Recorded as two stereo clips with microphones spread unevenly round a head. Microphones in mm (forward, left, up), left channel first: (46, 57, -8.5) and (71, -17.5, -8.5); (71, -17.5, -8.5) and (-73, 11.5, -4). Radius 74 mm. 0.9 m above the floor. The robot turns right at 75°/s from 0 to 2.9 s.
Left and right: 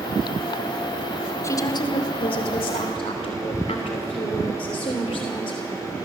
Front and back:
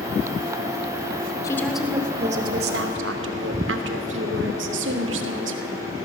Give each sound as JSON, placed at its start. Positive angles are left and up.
{"t": 1.4, "sound": "a woman speaking", "azimuth_deg": 55, "distance_m": 2.5}